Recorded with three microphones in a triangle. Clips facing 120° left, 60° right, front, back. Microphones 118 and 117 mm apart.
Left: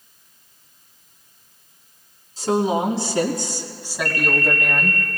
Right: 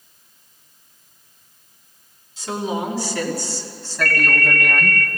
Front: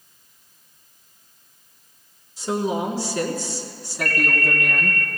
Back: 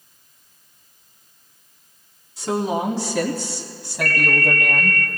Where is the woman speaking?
170° left, 3 m; by 5.0 s 135° right, 2.5 m.